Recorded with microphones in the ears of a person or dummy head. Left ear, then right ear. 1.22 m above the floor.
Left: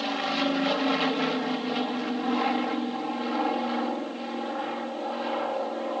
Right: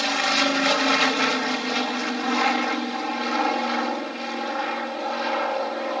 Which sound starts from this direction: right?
An aircraft, at 0.0 s.